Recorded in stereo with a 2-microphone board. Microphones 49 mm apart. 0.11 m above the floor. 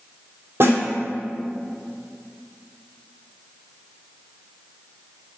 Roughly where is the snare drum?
Right.